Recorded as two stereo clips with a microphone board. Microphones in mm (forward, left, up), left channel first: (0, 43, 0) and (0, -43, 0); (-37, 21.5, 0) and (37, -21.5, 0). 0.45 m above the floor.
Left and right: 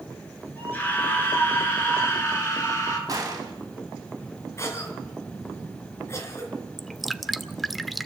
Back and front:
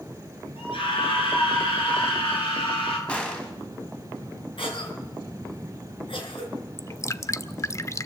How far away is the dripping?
About 0.6 m.